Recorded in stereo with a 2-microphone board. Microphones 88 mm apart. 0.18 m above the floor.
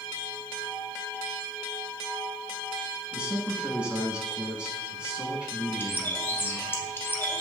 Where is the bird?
25° left (ahead or behind), 0.7 m.